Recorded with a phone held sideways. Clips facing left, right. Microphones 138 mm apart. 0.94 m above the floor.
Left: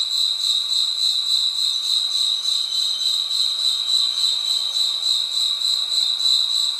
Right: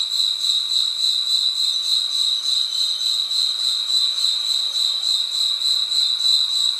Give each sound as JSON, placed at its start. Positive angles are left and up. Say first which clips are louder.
{"t": 0.0, "sound": "an insect", "louder": "even", "side_deg": 25, "distance_m": 3.5}